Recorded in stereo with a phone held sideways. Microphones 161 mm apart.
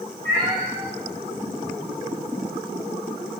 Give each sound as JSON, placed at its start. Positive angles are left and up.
{"t": 0.2, "sound": "a cat meowing", "side_deg": -55, "distance_m": 4.5}